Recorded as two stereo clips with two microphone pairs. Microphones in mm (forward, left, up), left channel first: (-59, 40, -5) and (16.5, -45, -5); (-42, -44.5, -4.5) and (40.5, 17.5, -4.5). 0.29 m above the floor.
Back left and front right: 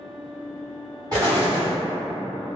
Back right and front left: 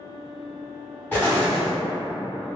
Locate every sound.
1.1 s an explosion: 75° right, 1.8 m